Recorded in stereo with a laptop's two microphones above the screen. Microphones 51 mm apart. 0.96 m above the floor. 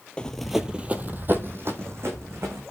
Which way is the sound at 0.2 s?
25° left (ahead or behind).